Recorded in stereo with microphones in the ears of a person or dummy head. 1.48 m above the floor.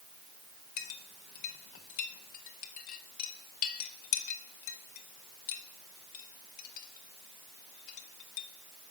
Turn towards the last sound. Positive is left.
turn(degrees=45)  # may be behind; listen again after turning